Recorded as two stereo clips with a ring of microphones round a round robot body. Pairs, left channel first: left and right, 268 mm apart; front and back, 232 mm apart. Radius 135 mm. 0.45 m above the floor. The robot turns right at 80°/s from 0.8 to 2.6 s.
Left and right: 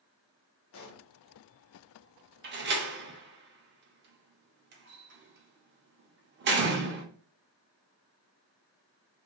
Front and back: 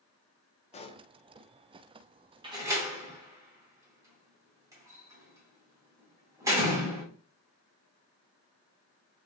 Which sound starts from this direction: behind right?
A door slam, at 2.4 s.